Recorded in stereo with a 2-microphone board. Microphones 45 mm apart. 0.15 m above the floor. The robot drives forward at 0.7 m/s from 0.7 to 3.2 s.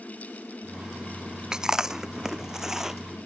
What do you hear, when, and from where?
1.5 s chewing: 15° right (ahead or behind); by 3.0 s 10° right (ahead or behind)